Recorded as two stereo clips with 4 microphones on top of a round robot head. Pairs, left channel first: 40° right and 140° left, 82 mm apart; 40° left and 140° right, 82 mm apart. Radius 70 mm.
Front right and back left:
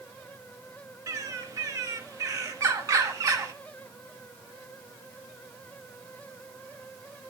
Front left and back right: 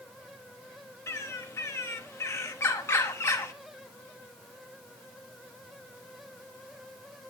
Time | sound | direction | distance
1.1 | a bird | 95° left | 1.3 m